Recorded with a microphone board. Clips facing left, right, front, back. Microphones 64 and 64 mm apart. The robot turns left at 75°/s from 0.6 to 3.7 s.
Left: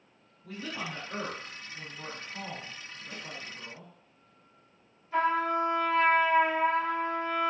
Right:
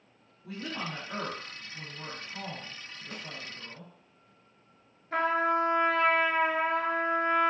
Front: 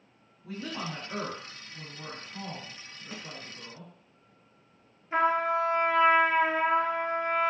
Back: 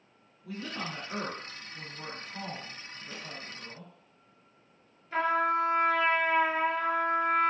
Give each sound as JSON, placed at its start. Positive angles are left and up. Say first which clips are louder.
{"t": 0.4, "sound": "a woman speaking", "louder": "right 1 dB, front 1 dB", "azimuth_deg": -30, "distance_m": 1.4}
{"t": 3.1, "sound": "a snare drum", "louder": "right 1 dB, front 2 dB", "azimuth_deg": -75, "distance_m": 0.7}
{"t": 5.1, "sound": "a trumpet", "louder": "even, front 1 dB", "azimuth_deg": -70, "distance_m": 0.6}